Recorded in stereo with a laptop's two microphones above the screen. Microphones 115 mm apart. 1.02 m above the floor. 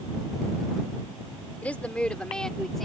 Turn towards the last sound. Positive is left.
turn(degrees=5)  # may be behind; listen again after turning